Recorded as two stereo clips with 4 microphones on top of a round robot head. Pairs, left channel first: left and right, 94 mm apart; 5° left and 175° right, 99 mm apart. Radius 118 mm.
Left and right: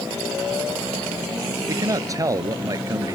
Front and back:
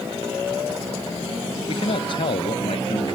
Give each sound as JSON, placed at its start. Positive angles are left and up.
{"t": 1.7, "sound": "a man speaking", "azimuth_deg": -35}